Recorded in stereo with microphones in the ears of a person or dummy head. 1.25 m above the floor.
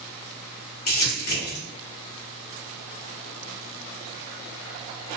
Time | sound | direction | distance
0.9 | crumpling | 50° left (ahead or behind) | 1.2 m